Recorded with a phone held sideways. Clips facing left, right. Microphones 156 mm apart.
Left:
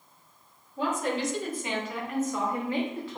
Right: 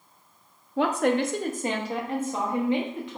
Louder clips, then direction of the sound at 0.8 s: Right 6 dB; 80° right.